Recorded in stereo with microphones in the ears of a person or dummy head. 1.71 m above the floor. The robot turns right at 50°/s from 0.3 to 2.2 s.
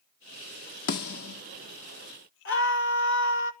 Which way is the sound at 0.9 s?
50° left (ahead or behind).